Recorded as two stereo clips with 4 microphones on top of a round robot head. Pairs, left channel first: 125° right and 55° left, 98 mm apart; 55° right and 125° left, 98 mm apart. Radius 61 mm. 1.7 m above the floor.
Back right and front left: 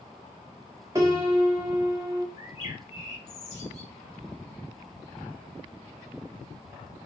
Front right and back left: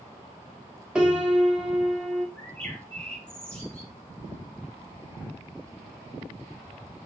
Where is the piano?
50° left, 1.3 m.